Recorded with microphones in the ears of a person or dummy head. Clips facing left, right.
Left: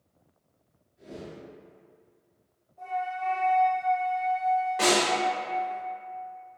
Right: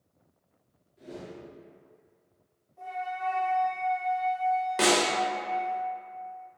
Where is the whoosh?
50° right (ahead or behind), 1.2 m.